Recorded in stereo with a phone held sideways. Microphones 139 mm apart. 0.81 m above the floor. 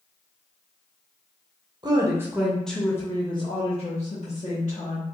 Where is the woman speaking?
30° right (ahead or behind), 0.9 m; by 5.0 s 65° left (ahead or behind), 1.7 m.